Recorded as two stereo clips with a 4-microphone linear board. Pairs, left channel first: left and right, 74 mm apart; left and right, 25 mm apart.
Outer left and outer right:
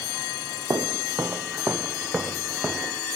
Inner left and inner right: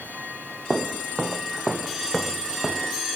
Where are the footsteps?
50° right (ahead or behind); by 3.0 s 15° right (ahead or behind).